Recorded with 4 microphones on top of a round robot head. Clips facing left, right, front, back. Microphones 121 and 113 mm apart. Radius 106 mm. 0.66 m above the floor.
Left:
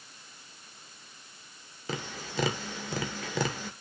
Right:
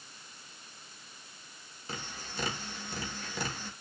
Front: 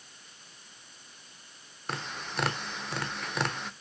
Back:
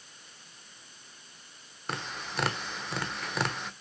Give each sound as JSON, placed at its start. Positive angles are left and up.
{"t": 1.9, "sound": "tapping", "azimuth_deg": 90, "distance_m": 1.1}